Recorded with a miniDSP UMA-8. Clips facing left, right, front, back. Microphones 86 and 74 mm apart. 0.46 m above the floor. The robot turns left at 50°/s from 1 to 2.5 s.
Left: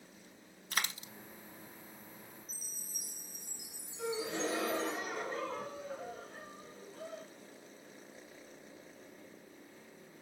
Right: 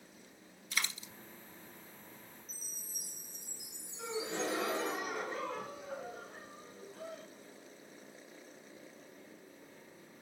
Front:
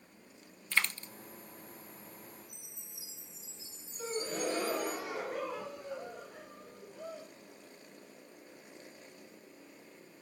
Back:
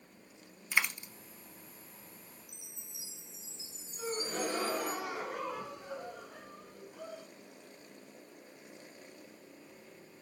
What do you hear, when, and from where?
0.7 s a dropped coin: 105° left, 0.5 m
2.5 s a chime: 175° left, 2.5 m
4.0 s a gasp: 175° right, 4.5 m